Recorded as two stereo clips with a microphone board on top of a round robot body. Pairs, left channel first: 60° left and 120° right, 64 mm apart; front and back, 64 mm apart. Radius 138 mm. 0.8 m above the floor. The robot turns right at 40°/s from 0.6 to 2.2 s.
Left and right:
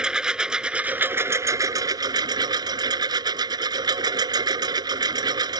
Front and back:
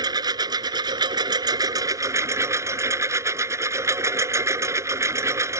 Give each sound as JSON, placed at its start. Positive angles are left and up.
{"t": 0.0, "sound": "a lawn mower", "azimuth_deg": 160}